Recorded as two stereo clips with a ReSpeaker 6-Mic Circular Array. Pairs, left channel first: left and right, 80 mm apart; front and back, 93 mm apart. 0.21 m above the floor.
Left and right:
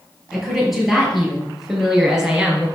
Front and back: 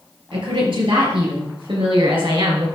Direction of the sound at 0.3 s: 175° right.